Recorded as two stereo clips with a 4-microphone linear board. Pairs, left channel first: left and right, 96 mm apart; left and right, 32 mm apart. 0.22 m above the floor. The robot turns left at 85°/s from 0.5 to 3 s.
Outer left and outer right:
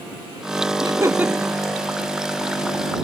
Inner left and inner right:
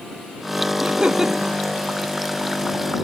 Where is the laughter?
120° right; by 1.6 s 170° left.